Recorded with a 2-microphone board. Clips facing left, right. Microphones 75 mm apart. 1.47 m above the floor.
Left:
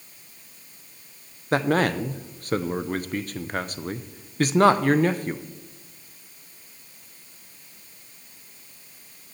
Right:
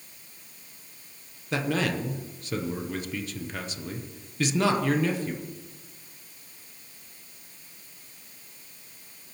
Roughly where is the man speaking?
Left.